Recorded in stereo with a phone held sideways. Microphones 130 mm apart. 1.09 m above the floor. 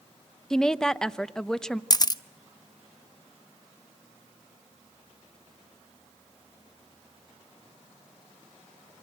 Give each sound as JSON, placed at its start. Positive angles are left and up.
{"t": 0.5, "sound": "a woman speaking", "side_deg": 5, "distance_m": 0.7}
{"t": 1.9, "sound": "a camera shutter", "side_deg": 30, "distance_m": 0.6}